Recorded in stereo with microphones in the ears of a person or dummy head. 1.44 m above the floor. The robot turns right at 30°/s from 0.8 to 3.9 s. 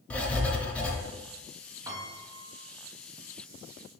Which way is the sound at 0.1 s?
5° left (ahead or behind).